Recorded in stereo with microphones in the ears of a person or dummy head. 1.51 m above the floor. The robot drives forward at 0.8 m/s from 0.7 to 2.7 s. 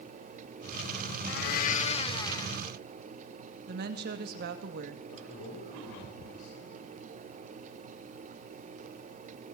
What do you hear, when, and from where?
1.3 s a blender: 65° left (ahead or behind), 0.6 m; by 2.6 s 25° left (ahead or behind), 1.3 m
3.7 s a woman speaking: 50° right (ahead or behind), 2 m
5.1 s a man speaking: 65° left (ahead or behind), 6.5 m